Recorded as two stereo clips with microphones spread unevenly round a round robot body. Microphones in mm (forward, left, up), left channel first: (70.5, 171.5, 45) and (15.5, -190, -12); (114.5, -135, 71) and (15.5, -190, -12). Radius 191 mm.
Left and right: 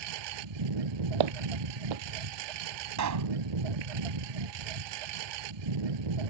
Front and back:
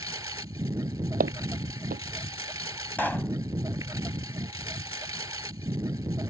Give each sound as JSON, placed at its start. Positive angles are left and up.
{"t": 0.0, "sound": "a lawn mower", "azimuth_deg": -85}
{"t": 1.2, "sound": "footsteps", "azimuth_deg": -120}
{"t": 3.0, "sound": "a pop", "azimuth_deg": -60}